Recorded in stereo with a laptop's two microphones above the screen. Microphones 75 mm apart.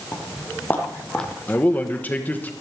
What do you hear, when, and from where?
0.1 s footsteps: 35° left (ahead or behind), 2.5 m; by 1.3 s 10° left (ahead or behind), 1.5 m
1.5 s a man speaking: 20° left (ahead or behind), 1.1 m